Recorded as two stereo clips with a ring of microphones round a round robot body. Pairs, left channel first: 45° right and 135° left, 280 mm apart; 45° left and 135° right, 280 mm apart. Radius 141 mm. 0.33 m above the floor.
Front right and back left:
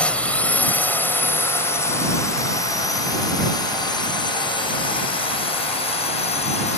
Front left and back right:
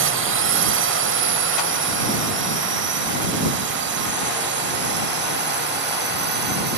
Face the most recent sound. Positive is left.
turn(degrees=-100)